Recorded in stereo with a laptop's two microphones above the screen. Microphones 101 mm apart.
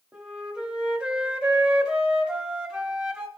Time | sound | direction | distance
0.1 | a flute | 10° right (ahead or behind) | 0.9 m